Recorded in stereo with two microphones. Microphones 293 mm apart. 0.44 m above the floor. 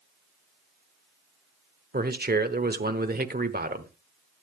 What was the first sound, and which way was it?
A man speaking, 30° right (ahead or behind).